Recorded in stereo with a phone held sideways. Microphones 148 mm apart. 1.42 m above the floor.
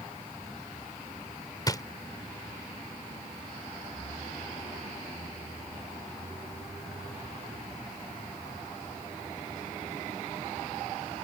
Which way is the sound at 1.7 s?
25° left (ahead or behind).